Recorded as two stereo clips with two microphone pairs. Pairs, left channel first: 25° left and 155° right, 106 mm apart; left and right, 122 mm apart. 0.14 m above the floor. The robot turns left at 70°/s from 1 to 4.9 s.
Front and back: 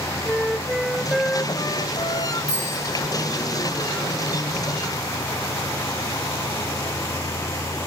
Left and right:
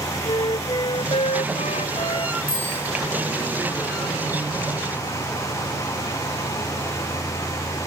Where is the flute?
125° left, 0.5 m; by 2.4 s 30° left, 0.5 m.